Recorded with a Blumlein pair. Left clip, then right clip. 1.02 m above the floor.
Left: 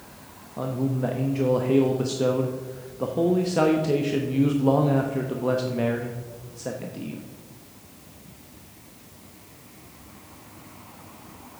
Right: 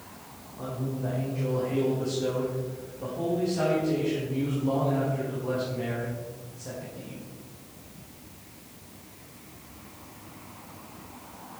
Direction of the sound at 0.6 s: 30° left.